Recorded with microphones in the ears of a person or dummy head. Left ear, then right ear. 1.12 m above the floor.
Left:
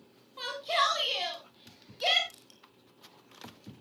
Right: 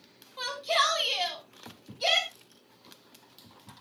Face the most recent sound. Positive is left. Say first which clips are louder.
# even
turn(degrees=50)  # may be behind; listen again after turning